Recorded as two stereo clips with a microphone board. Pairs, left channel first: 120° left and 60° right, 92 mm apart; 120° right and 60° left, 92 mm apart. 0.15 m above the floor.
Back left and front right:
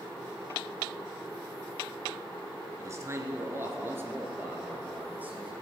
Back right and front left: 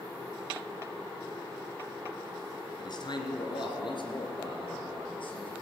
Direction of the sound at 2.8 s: 105° right.